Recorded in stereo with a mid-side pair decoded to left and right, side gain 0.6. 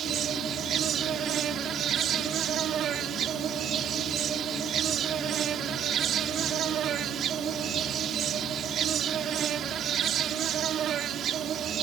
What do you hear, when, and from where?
0.0 s an insect: 50° right